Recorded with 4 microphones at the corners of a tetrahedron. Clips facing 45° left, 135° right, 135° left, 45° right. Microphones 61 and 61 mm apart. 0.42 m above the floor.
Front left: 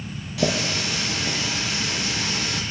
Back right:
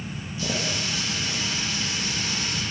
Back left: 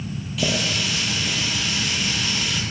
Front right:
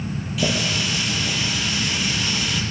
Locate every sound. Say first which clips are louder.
0.4 s a running tap: front left 5 dB, front right 1 dB; 40° left, 7.5 m